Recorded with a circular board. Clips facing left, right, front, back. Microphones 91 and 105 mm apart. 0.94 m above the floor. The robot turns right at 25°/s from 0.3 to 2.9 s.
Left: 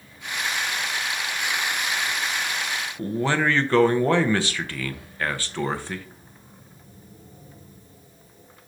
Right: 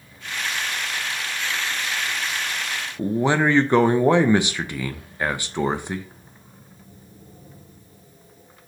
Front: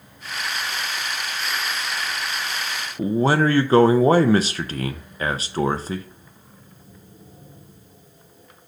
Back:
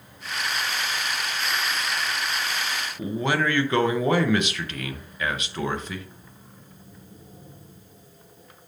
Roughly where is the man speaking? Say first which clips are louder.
Right 4 dB, front 7 dB; ahead right.